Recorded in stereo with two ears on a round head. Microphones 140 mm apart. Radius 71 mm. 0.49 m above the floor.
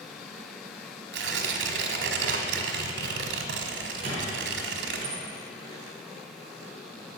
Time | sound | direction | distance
1.1 | tearing paper | 80° right | 1.3 m
4.0 | a squeak | 40° right (ahead or behind) | 4 m